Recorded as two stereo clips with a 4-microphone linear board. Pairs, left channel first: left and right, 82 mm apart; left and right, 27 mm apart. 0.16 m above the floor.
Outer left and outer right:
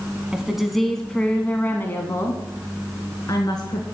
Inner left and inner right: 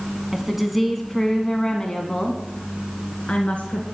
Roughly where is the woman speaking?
Centre.